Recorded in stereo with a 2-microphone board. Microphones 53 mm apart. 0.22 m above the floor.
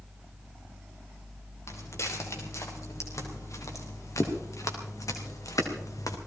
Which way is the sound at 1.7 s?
60° left (ahead or behind).